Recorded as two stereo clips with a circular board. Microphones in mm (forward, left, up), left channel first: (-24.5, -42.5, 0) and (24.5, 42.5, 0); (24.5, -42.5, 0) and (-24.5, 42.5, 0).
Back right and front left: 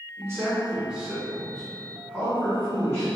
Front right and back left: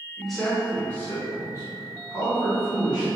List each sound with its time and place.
0.2 s a man speaking: 35° left, 1.2 m; by 3.1 s 75° right, 1.6 m